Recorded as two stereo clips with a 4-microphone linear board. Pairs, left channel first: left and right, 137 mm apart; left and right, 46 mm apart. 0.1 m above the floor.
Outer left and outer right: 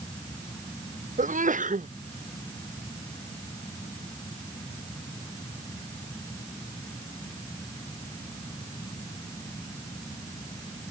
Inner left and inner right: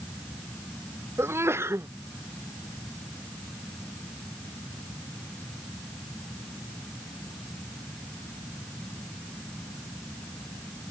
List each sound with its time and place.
1.2 s a sneeze: 70° right (ahead or behind)